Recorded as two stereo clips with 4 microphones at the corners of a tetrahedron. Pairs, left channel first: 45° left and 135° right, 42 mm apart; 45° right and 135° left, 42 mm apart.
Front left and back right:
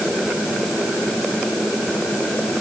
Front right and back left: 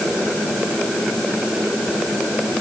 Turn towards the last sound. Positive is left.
No sound to turn to.